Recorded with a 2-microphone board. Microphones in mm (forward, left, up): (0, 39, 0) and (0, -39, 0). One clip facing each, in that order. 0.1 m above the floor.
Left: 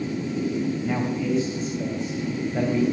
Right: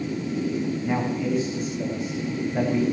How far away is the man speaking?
About 8.5 m.